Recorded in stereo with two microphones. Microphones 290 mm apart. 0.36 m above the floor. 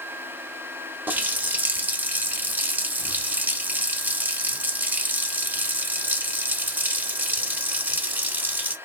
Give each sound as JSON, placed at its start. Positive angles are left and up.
{"t": 1.1, "sound": "a running tap", "side_deg": -5, "distance_m": 0.5}